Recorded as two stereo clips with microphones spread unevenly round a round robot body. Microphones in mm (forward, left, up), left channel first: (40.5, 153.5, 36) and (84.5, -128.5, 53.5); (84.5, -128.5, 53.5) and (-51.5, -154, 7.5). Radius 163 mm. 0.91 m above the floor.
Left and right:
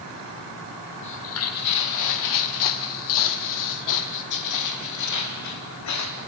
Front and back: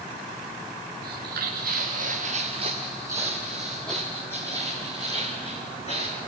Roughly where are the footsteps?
Behind left.